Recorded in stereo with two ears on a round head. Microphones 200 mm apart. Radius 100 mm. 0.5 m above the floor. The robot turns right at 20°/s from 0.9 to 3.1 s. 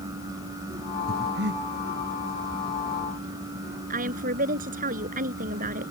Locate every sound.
1.1 s breathing: 45° right (ahead or behind); by 1.6 s 55° right (ahead or behind)
3.9 s a woman speaking: 40° right (ahead or behind)